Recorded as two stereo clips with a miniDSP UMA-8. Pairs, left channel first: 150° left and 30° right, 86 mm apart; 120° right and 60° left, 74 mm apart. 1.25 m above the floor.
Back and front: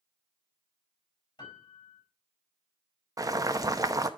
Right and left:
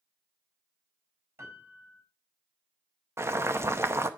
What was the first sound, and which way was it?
A piano, 115° left.